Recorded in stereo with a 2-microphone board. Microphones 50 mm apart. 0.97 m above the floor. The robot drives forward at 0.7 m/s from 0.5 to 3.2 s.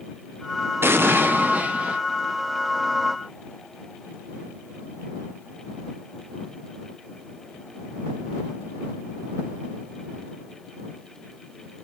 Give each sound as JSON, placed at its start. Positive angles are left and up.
{"t": 0.8, "sound": "an explosion", "side_deg": -55, "distance_m": 0.5}